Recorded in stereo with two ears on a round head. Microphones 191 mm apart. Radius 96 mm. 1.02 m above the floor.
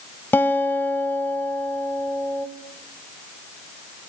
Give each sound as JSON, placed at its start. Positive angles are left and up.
{"t": 0.3, "sound": "a guitar", "side_deg": 10, "distance_m": 1.4}